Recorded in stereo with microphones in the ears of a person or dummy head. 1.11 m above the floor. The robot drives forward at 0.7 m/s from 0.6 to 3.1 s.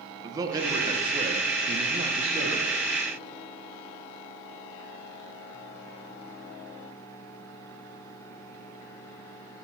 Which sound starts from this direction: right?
A man speaking, at 0.2 s.